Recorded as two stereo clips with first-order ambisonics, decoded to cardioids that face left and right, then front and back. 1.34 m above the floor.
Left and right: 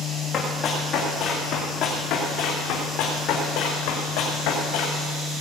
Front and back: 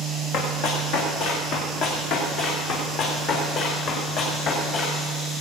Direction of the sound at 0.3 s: 20° left.